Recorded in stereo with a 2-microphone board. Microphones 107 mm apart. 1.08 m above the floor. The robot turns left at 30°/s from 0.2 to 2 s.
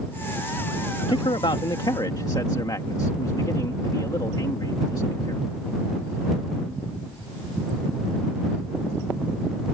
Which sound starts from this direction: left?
A man speaking, at 1.1 s.